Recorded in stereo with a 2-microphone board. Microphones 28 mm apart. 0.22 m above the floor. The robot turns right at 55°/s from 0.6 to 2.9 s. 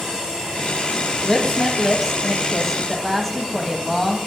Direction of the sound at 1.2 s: 20° right (ahead or behind).